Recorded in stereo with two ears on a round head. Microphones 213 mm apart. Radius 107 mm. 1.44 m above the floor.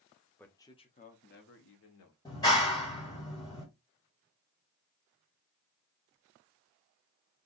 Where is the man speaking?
5° left (ahead or behind), 1.0 m; by 2.1 s 65° left (ahead or behind), 1.4 m.